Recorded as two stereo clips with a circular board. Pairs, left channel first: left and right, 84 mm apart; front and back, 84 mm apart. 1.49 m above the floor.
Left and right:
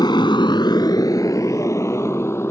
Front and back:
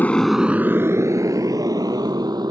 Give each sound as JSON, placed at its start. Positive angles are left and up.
{"t": 0.0, "sound": "a motorcycle", "azimuth_deg": 65}